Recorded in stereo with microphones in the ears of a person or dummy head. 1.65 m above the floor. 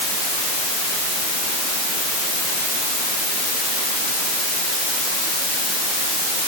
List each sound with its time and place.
Only background noise.